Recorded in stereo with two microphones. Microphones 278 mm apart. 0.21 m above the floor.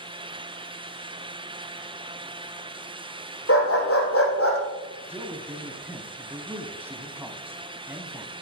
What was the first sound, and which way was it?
A dog barking, 55° left (ahead or behind).